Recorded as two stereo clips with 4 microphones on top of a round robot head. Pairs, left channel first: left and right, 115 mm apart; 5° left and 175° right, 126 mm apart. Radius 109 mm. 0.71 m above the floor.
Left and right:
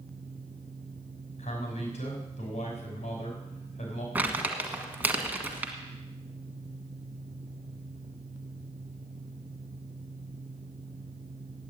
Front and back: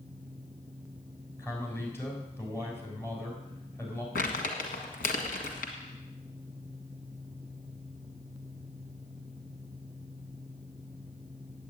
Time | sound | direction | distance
1.4 | a man speaking | 75° left | 6 m
4.2 | crumpling | 15° right | 1.6 m